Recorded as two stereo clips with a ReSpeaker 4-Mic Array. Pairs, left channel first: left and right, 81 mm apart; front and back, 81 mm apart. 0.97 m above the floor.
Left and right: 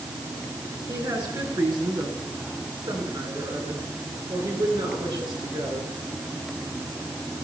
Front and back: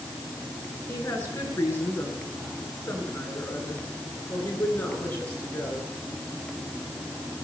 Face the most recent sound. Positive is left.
turn(degrees=-70)